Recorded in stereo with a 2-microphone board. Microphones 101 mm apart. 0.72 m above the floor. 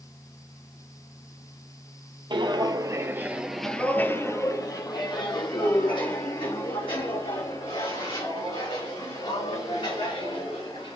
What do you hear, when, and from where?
2.3 s footsteps: 55° right (ahead or behind), 1.2 m; by 10.9 s 70° left (ahead or behind), 6 m